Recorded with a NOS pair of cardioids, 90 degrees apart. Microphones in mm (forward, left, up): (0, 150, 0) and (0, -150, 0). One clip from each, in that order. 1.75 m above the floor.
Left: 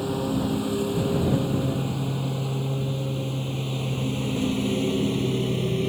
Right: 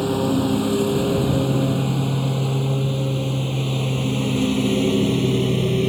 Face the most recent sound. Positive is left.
turn(degrees=-35)